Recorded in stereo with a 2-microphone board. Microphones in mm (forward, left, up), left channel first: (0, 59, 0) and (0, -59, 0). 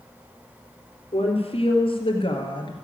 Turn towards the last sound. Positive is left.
turn(degrees=40)  # may be behind; listen again after turning